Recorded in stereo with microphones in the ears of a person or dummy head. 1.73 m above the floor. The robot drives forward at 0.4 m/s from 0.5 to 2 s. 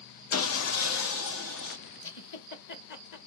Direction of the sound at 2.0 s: 55° left (ahead or behind).